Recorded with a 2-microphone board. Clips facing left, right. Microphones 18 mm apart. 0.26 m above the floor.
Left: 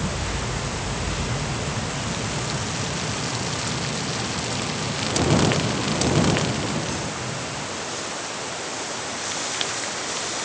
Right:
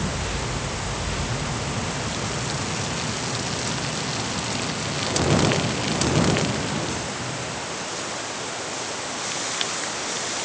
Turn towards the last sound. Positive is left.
No sound to turn to.